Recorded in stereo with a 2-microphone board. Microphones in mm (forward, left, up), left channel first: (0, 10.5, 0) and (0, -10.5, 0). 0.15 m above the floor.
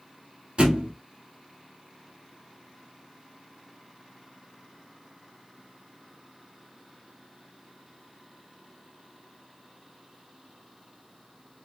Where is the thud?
55° right (ahead or behind), 1.4 m.